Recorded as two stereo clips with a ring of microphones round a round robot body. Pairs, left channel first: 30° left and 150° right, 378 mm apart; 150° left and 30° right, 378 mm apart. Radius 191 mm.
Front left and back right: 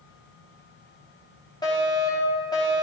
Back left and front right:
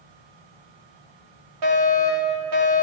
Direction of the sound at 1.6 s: 50° right.